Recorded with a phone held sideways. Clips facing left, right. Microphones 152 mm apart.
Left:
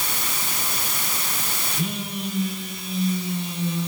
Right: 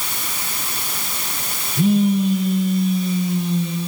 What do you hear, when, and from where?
1.8 s a phone buzzing: 70° right (ahead or behind), 8.5 m